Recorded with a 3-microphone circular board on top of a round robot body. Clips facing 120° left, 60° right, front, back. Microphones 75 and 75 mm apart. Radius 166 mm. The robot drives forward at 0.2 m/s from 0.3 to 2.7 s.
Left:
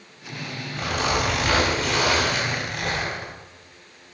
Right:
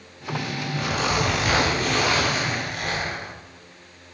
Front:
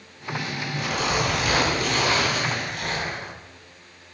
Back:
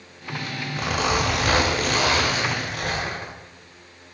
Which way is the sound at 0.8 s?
150° right.